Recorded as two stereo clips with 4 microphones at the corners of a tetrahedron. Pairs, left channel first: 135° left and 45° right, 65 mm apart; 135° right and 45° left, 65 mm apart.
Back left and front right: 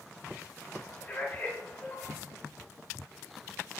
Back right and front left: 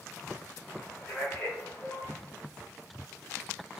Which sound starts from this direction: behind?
A man speaking, at 0.7 s.